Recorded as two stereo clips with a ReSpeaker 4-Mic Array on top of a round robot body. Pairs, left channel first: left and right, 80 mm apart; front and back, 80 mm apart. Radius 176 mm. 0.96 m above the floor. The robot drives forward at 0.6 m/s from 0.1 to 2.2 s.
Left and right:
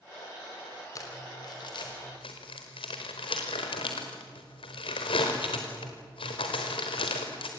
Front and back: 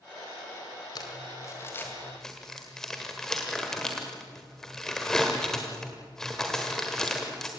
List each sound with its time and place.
0.9 s crumpling: 40° left, 1.2 m; by 7.5 s 85° left, 0.9 m